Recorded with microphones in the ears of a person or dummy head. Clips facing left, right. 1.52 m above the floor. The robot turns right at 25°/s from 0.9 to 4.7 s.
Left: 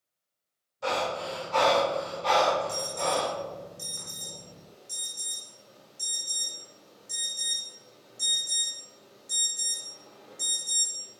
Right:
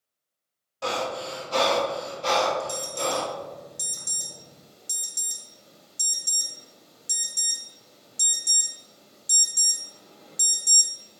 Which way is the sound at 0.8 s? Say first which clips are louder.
Right 1 dB; 80° right.